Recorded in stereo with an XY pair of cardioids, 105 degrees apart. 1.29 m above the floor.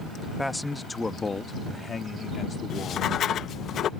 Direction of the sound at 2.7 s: 60° left.